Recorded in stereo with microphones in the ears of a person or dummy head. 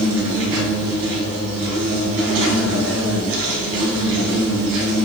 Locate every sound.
0.0 s an insect: 70° right (ahead or behind), 3.5 m